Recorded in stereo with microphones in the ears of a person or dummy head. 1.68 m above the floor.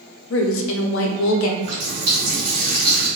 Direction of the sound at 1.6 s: 50° right (ahead or behind).